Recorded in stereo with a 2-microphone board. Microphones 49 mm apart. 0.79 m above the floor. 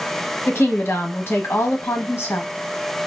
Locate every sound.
0.5 s a woman speaking: 50° left (ahead or behind), 0.8 m